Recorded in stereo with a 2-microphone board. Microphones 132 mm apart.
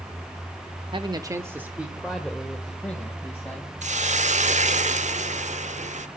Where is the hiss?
65° right (ahead or behind), 0.8 m.